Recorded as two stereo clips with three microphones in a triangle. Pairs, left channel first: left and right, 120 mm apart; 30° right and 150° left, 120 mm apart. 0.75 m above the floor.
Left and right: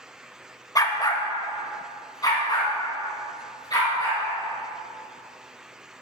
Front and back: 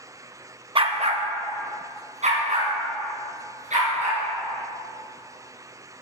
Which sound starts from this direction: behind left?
A dog barking, at 0.8 s.